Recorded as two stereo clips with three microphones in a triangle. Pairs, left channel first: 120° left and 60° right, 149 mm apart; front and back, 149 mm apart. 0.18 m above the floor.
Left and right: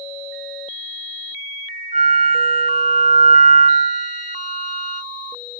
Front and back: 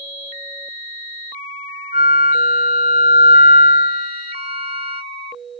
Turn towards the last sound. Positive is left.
turn(degrees=145)